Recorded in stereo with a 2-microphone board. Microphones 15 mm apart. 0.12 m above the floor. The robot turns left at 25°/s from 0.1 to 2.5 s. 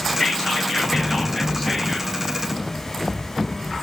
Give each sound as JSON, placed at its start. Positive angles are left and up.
{"t": 0.2, "sound": "whispering", "azimuth_deg": 80, "distance_m": 2.5}